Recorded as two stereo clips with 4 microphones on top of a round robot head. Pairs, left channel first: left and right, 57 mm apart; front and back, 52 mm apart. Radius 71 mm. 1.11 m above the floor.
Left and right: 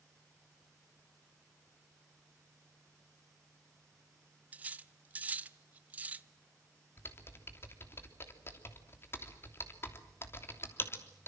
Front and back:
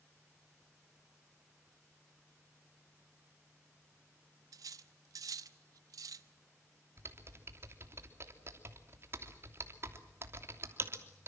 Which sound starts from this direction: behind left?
Typing on a keyboard, at 7.0 s.